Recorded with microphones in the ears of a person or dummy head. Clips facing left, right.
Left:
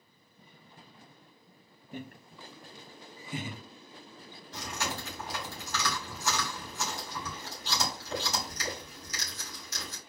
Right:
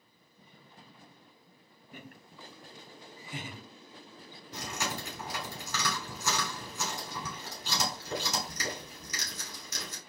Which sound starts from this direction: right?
Chewing, at 4.5 s.